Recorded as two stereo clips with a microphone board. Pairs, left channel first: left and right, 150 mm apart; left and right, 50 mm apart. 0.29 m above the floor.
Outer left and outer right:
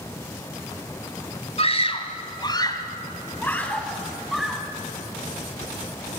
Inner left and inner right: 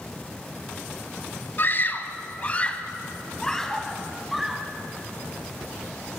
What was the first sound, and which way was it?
A scream, 45° left (ahead or behind).